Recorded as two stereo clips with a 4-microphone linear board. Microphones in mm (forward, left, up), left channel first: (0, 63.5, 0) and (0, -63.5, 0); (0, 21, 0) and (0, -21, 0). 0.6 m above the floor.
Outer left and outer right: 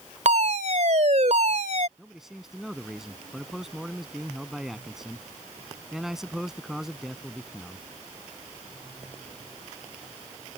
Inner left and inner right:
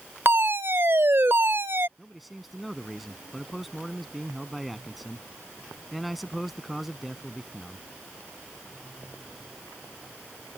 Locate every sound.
0.2 s a fire alarm: 65° right (ahead or behind)
2.0 s a man speaking: 5° right (ahead or behind)